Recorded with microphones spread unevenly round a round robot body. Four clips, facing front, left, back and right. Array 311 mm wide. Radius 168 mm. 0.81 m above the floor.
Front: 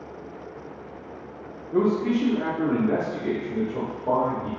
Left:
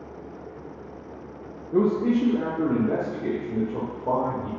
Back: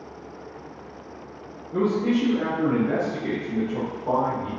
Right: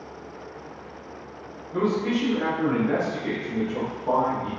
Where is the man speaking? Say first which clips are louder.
Left 3 dB, even; 90° left, 0.6 m; by 4.5 s 115° left, 2.5 m.